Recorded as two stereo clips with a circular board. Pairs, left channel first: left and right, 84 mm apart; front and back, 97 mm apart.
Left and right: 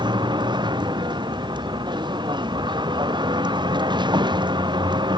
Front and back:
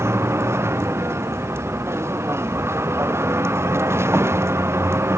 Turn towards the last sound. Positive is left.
turn(degrees=-115)